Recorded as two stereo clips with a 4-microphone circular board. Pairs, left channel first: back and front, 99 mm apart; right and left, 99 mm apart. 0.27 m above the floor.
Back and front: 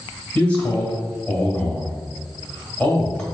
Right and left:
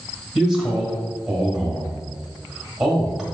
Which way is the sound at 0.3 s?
155° left.